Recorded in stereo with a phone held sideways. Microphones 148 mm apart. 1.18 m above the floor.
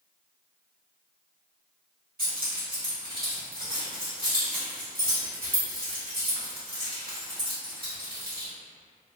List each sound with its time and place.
2.2 s keys jangling: 80° right, 1.6 m